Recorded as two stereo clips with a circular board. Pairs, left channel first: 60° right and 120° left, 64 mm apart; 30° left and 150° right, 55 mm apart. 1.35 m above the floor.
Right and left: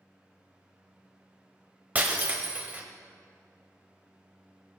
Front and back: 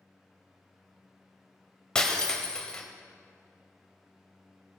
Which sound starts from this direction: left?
Breaking glass, at 1.9 s.